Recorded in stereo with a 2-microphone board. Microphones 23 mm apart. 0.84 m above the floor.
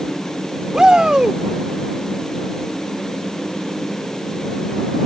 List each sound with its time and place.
0.7 s a shout: 40° right (ahead or behind)